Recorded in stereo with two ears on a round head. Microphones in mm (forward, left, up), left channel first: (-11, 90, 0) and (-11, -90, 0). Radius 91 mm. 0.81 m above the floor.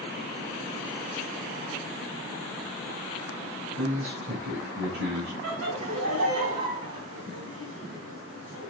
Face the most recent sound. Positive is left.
turn(degrees=-80)